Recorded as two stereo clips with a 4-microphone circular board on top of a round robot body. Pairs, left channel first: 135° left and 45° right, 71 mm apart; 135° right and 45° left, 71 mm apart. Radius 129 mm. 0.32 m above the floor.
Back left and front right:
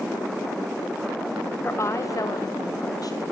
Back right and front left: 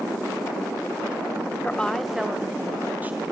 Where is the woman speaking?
170° left, 1.3 m; by 3.2 s 110° left, 3 m.